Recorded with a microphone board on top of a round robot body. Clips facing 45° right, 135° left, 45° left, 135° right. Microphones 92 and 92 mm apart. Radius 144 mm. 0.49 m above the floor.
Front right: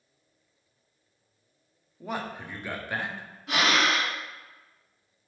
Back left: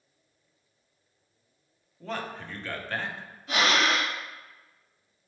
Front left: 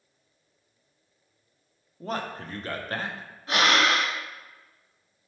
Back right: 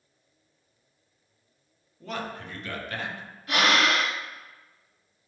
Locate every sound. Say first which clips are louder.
2.0 s a man speaking: front right 1 dB, front left 2 dB; 25° left, 0.8 m
3.5 s breathing: even, front left 1 dB; 20° right, 1.4 m